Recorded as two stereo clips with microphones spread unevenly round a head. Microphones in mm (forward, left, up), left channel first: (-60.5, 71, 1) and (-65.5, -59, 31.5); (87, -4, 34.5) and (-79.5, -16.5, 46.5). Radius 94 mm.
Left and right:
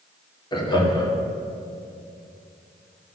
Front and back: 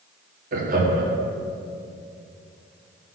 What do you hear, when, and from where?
0.5 s laughter: 140° left, 2 m